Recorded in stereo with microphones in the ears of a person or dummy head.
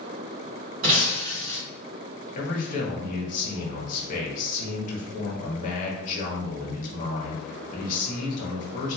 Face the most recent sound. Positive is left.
turn(degrees=45)  # may be behind; listen again after turning